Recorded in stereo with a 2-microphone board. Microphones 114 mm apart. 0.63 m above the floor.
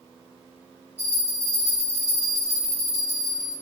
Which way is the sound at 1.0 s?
70° right (ahead or behind).